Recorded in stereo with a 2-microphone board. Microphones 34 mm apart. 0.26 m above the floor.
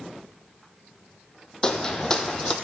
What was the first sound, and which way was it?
Footsteps, 25° left (ahead or behind).